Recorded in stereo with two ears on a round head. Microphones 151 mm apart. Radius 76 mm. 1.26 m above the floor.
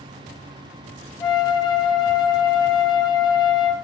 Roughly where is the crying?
No crying in this recording.